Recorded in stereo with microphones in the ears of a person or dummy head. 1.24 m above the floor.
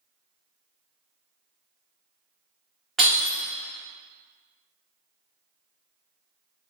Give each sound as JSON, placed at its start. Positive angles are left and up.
{"t": 3.0, "sound": "breaking glass", "side_deg": 0, "distance_m": 1.4}